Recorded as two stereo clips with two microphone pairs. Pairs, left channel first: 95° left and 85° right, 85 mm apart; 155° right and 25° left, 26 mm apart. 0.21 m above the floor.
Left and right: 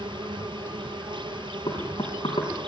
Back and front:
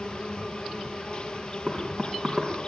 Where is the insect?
105° right, 1.4 m.